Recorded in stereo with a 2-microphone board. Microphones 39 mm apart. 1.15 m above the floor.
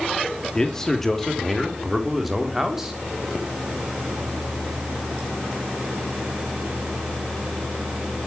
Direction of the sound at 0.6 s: 15° left (ahead or behind).